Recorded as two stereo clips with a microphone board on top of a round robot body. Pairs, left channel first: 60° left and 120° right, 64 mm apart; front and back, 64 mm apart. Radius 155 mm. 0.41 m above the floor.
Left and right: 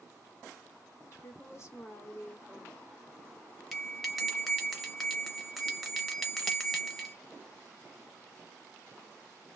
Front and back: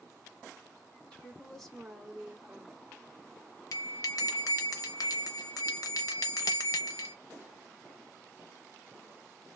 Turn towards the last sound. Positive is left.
turn(degrees=-30)